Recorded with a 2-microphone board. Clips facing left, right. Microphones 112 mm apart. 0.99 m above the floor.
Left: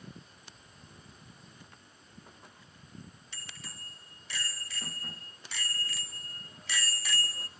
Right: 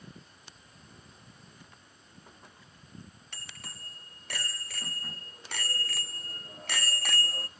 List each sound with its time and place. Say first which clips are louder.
3.3 s a bicycle bell: right 2 dB; 60° right (ahead or behind), 3.5 m; by 7.5 s 55° right (ahead or behind), 0.9 m